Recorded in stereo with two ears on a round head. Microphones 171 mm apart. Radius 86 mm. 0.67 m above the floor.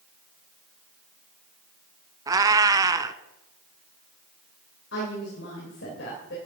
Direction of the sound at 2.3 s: 20° right (ahead or behind).